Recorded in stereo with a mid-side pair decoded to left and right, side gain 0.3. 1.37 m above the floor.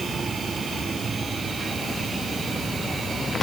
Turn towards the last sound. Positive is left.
No sound to turn to.